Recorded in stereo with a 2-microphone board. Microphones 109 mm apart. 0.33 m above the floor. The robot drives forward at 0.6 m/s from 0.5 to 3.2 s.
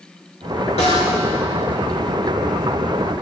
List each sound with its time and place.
0.8 s a snare drum: 70° left (ahead or behind), 3.5 m; by 1.1 s 75° left (ahead or behind), 3.5 m